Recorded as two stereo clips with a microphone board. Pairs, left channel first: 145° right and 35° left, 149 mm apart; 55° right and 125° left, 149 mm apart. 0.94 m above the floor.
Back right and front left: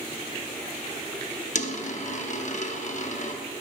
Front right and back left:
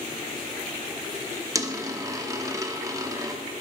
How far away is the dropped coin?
About 0.6 m.